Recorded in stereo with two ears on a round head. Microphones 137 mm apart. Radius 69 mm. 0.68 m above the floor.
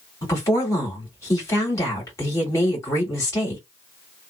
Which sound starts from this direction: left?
A woman speaking, at 0.2 s.